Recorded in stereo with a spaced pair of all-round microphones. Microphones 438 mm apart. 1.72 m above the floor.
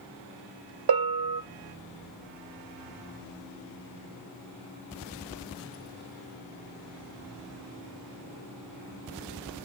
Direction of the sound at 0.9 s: 55° right (ahead or behind).